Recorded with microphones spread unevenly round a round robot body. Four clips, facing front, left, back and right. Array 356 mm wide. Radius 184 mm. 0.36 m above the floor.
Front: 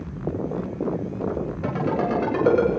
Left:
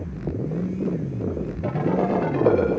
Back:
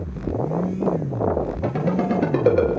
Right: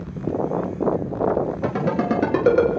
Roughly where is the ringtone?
Behind right.